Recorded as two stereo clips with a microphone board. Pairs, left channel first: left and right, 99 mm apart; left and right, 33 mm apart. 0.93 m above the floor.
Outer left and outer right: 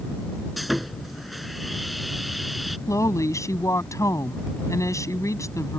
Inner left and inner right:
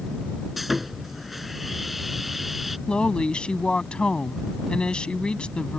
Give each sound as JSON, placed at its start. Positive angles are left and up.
{"t": 0.6, "sound": "sawing", "side_deg": 0}
{"t": 2.9, "sound": "a woman speaking", "side_deg": 30}